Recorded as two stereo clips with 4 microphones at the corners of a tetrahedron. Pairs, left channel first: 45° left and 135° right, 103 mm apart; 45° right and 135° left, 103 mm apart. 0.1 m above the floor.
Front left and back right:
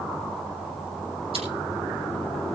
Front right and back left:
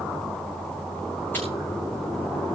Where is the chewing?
120° right, 6.5 m.